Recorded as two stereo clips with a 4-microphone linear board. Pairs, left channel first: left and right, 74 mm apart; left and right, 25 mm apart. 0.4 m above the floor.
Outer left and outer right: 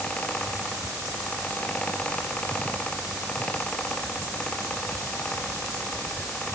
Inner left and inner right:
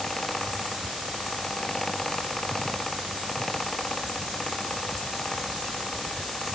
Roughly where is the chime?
I don't hear a chime.